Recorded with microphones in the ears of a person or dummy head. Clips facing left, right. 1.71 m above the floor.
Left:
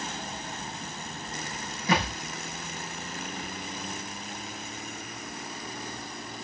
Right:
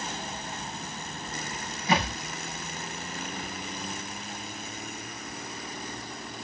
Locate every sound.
1.9 s a thud: 65° left (ahead or behind), 4.5 m